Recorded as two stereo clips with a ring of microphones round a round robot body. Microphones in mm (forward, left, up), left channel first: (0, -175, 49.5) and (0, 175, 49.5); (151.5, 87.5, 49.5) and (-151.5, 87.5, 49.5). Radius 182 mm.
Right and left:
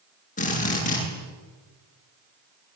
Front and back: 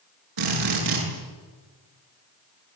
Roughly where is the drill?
Behind.